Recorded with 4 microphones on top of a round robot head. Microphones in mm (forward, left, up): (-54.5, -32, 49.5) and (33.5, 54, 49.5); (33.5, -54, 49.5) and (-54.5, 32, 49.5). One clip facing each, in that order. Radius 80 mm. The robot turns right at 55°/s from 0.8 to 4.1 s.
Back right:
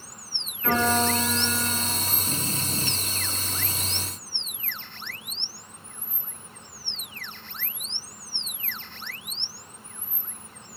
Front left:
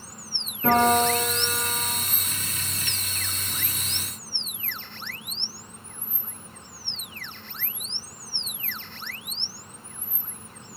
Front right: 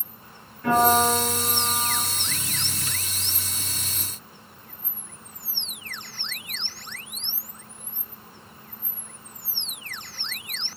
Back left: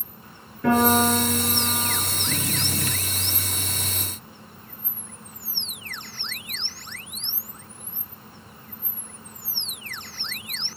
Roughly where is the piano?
Left.